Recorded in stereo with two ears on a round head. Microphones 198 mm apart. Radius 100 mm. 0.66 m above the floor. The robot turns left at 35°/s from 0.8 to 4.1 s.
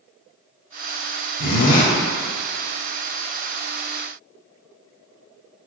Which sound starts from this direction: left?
A zipper, at 1.4 s.